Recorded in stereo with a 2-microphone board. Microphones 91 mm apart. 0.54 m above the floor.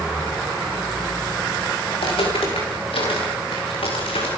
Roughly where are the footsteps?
Left.